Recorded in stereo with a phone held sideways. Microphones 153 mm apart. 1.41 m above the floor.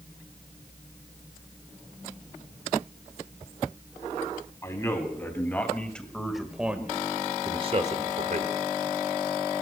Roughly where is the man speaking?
Centre.